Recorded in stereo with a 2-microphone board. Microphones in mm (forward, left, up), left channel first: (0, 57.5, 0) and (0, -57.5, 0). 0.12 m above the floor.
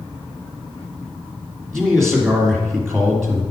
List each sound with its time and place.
1.7 s a man speaking: centre (ahead or behind), 2 m